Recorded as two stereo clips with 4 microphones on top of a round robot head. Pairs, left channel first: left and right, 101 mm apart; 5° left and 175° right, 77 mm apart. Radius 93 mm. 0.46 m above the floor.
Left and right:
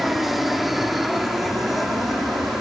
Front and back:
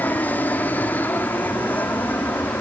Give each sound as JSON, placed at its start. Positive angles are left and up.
{"t": 0.0, "sound": "an aircraft", "azimuth_deg": -5}